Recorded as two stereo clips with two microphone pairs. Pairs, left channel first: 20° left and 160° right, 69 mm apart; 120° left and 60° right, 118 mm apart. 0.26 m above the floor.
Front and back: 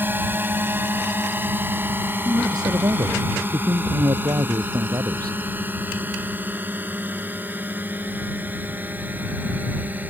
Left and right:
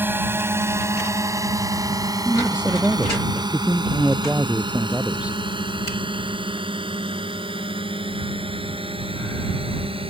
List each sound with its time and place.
0.0 s a drone: 120° right; by 10.1 s 95° right
2.2 s a man speaking: 140° right